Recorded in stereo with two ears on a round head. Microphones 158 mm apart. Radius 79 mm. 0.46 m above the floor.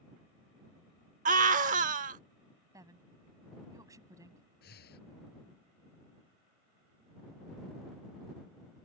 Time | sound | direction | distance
1.2 | a scream | 45° right (ahead or behind) | ?
2.7 | a woman speaking | 20° right (ahead or behind) | ?
4.6 | breathing | 60° left (ahead or behind) | ?